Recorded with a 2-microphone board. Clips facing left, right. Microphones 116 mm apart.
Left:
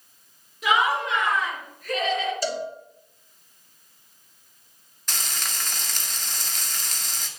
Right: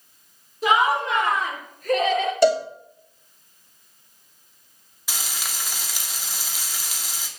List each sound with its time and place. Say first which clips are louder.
0.6 s laughter: right 3 dB; 35° right (ahead or behind), 3.5 m; by 2.3 s 50° right (ahead or behind), 1.9 m
2.4 s a cowbell: right 11 dB; 70° right (ahead or behind), 2.5 m
5.1 s frying: even; 10° right (ahead or behind), 1.8 m